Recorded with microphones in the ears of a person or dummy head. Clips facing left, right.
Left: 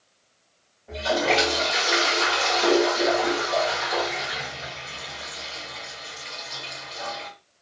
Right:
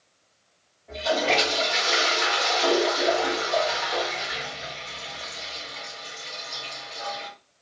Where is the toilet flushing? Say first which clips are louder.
Left 1 dB; 15° left (ahead or behind), 1.3 m.